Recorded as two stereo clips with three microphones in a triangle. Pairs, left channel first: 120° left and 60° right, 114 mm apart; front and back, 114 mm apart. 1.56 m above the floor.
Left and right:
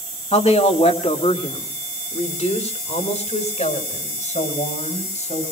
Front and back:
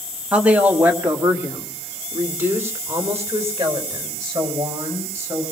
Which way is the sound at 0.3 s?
100° left.